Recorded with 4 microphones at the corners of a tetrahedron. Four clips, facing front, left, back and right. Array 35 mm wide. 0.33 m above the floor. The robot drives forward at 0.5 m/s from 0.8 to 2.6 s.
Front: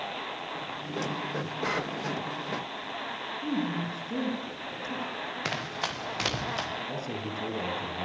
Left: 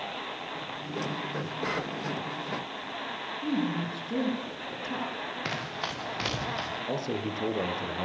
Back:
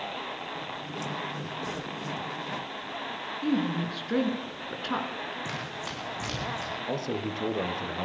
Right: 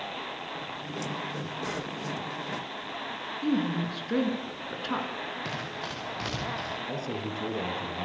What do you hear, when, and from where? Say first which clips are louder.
3.4 s a woman speaking: right 2 dB, back 4 dB; 140° right, 5 m
5.5 s running footsteps: left 2 dB, front 3 dB; 25° left, 8 m; by 6.7 s 20° left, 9 m
6.9 s a man speaking: left 2 dB, back 3 dB; 140° left, 5 m